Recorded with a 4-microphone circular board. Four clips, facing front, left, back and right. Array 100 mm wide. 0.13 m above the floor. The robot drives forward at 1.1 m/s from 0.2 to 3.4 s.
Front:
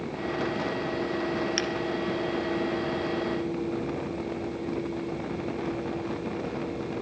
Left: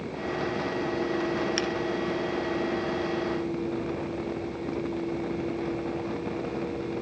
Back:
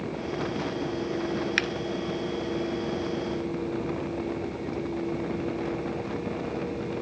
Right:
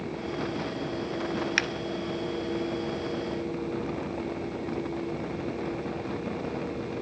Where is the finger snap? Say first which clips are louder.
Left 2 dB, even; 125° right, 1.4 m; by 1.7 s 135° right, 1.4 m.